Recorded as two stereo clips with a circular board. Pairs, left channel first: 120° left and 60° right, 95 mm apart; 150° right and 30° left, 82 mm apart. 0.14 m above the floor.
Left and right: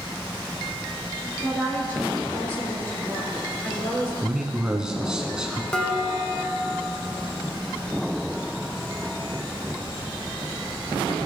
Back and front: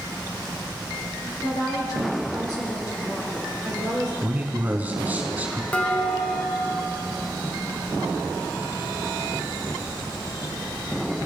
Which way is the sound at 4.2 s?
10° left.